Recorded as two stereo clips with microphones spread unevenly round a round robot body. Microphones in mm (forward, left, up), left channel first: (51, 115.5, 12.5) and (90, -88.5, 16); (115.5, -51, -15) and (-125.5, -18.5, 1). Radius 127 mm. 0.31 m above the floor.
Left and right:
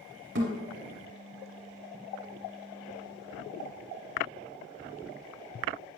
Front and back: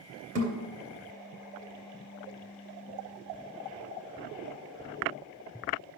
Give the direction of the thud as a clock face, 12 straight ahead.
4 o'clock.